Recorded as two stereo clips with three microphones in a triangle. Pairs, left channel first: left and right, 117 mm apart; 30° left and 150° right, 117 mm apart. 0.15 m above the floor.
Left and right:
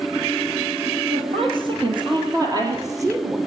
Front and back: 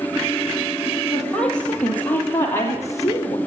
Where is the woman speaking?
55° right, 4 m; by 3.4 s 25° right, 3.5 m.